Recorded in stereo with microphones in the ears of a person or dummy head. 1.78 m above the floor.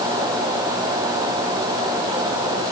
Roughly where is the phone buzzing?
No phone buzzing in this recording.